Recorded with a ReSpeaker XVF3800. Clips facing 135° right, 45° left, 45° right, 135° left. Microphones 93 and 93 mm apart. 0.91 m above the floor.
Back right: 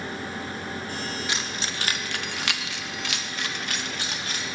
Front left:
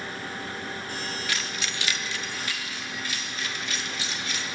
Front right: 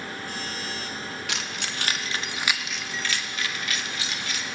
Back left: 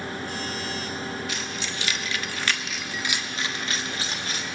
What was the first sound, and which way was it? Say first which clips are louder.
Keys jangling: back right 1 dB, back left 1 dB; 65° right.